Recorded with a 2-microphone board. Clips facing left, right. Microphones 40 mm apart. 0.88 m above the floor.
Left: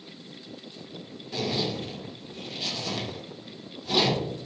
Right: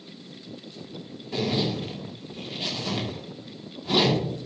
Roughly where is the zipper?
Right.